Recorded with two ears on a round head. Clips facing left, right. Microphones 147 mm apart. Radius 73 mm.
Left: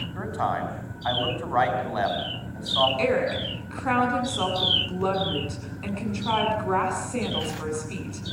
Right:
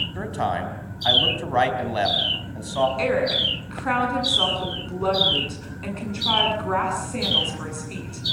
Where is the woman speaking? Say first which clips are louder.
Right 1 dB; centre (ahead or behind), 9 m.